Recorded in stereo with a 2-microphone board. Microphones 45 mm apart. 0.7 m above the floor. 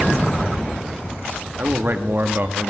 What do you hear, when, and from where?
1.6 s a man speaking: 45° right (ahead or behind), 0.9 m